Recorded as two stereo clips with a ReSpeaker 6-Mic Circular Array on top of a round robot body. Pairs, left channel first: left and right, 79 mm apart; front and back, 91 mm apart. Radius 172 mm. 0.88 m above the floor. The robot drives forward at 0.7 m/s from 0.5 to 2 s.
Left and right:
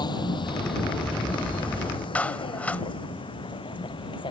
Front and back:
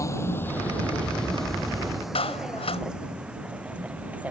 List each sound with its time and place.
0.0 s a vehicle: 60° left; by 4.3 s 105° left
2.1 s a clap: 15° left